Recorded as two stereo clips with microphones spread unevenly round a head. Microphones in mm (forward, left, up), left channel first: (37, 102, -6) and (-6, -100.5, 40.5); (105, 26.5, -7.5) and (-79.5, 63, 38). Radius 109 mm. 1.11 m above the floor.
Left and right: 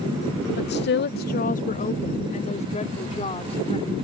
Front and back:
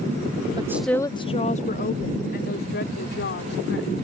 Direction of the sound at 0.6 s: 100° left.